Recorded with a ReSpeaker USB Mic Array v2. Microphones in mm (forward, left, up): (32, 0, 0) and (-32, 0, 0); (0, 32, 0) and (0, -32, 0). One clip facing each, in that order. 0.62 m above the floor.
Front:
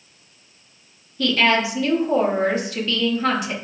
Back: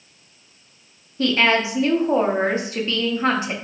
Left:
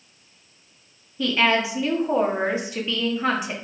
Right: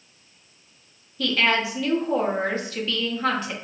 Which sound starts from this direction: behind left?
A woman speaking, at 1.2 s.